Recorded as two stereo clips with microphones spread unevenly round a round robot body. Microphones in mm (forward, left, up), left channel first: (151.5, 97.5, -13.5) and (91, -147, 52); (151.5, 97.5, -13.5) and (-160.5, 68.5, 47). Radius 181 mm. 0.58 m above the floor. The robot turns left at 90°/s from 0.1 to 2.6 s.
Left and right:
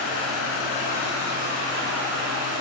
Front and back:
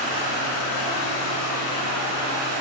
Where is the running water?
90° left, 4 m; by 2.6 s 135° right, 4 m.